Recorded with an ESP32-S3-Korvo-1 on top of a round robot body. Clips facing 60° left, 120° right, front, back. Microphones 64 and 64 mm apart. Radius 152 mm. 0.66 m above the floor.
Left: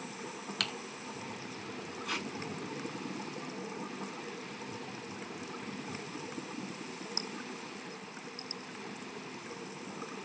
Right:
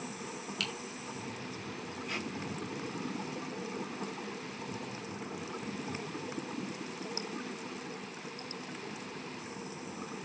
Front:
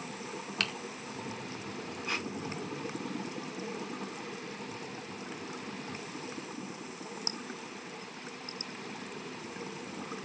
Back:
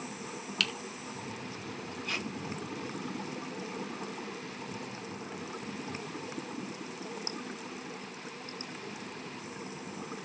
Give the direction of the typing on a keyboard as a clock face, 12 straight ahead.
10 o'clock.